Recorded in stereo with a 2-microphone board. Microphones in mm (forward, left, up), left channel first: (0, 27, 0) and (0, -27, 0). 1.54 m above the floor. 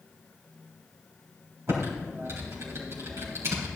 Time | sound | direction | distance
1.7 | typing on a keyboard | 60° right (ahead or behind) | 4 m